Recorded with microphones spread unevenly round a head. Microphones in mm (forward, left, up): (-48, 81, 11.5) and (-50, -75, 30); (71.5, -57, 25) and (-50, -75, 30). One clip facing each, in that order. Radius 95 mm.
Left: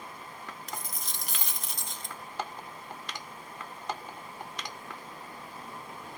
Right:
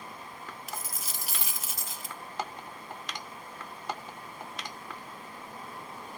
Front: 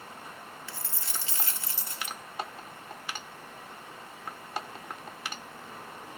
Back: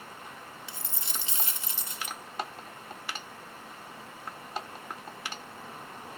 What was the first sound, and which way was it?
A dropped coin, 150° right.